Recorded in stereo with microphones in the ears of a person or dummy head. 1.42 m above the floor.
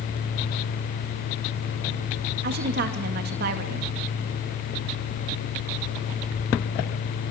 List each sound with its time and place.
2.4 s a woman speaking: 55° right (ahead or behind), 2.5 m